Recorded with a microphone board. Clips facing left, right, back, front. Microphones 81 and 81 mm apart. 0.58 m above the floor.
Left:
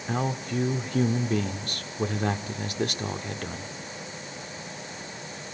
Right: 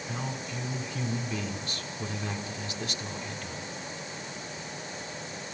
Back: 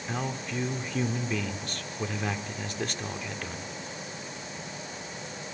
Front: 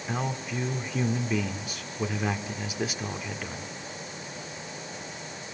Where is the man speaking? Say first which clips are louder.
Left 9 dB, front 2 dB; 80° left, 1.3 m.